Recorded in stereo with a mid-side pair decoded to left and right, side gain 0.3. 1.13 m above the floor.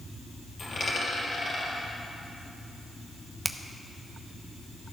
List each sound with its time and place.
0.6 s a dropped coin: 55° left, 3.5 m
3.5 s a finger snap: 25° right, 0.7 m